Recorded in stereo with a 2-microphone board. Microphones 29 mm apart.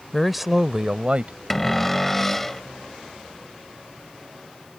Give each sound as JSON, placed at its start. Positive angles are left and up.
{"t": 0.1, "sound": "a man speaking", "side_deg": 10}
{"t": 1.5, "sound": "a cupboard door", "side_deg": 5}